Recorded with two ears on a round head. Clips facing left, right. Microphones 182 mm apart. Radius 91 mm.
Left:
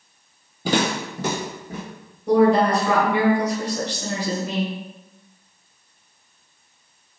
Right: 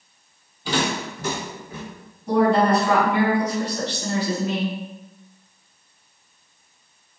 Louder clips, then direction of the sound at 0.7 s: Left 3 dB; 40° left (ahead or behind).